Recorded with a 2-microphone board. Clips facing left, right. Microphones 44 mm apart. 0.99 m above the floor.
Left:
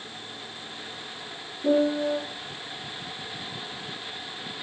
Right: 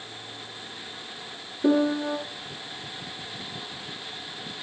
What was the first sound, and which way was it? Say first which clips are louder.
A piano: even; 50° right (ahead or behind).